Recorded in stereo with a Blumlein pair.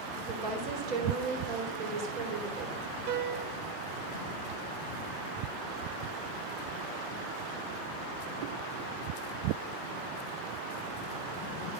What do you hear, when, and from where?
0.3 s a woman speaking: 35° right, 3.5 m
3.1 s a piano: 50° right, 1.2 m